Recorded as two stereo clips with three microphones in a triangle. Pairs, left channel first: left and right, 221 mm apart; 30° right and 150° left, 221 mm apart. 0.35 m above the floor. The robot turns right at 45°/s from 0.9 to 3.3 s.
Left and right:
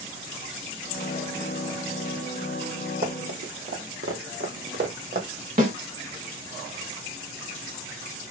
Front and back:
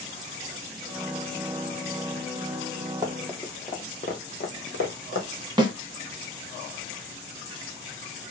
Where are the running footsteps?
135° right, 1.0 m; by 5.3 s 40° right, 1.1 m.